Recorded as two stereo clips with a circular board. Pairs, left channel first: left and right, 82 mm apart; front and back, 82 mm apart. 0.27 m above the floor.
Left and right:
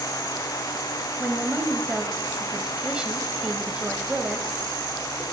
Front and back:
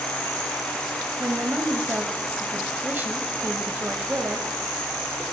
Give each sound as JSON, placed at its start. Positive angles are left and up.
{"t": 1.2, "sound": "a woman speaking", "azimuth_deg": -155, "distance_m": 1.0}